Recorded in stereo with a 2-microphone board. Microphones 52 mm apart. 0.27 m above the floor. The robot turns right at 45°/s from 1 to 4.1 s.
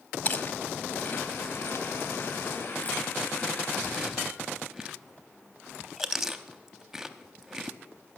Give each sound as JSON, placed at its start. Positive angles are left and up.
{"t": 0.2, "sound": "chewing", "side_deg": 35, "distance_m": 0.6}